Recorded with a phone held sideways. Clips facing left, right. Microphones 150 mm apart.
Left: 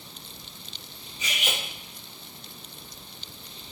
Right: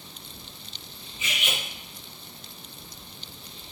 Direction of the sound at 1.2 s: 40° left (ahead or behind).